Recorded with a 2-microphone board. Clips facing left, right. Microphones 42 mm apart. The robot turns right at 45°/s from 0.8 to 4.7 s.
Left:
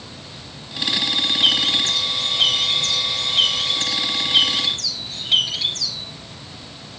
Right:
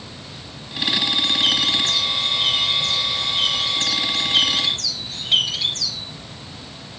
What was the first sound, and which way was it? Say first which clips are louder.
A bird: left 3 dB; 25° left.